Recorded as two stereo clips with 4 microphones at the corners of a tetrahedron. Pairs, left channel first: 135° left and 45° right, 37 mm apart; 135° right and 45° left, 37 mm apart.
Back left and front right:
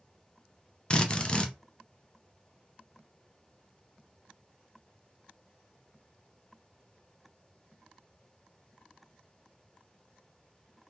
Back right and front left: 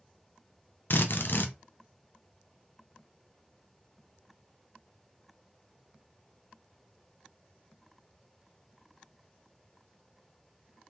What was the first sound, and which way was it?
A drill, 160° right.